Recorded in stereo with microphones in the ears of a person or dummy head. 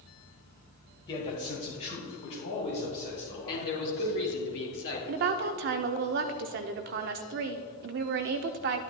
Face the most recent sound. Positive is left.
turn(degrees=-50)  # may be behind; listen again after turning